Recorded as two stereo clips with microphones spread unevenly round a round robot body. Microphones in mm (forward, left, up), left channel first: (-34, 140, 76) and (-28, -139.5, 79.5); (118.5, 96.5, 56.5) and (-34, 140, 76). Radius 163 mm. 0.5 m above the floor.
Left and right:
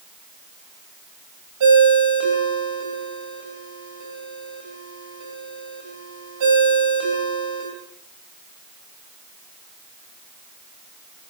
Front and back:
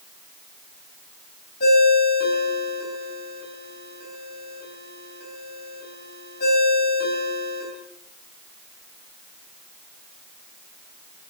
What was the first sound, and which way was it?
A ringtone, 60° right.